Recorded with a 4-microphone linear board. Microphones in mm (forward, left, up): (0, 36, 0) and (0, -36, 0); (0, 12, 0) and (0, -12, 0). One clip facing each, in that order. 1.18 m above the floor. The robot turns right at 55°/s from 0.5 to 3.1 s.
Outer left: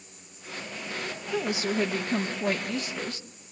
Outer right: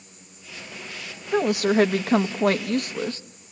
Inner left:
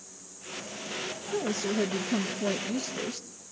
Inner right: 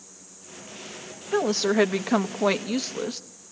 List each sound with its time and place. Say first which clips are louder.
1.3 s a woman speaking: outer right 9 dB, inner right 8 dB; 135° right, 1.1 m; by 3.2 s 40° right, 1.1 m